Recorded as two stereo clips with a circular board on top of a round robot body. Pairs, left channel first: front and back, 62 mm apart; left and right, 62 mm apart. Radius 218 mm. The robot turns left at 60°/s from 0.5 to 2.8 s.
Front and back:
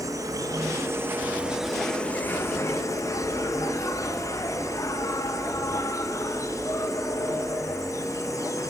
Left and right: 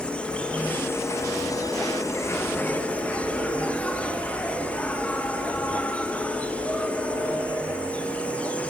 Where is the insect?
165° left, 3 m; by 8.7 s 25° left, 3 m.